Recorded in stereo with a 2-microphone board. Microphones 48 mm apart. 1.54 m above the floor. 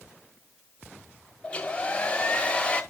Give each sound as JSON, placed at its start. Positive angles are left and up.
{"t": 1.4, "sound": "a hair dryer", "side_deg": 20, "distance_m": 1.5}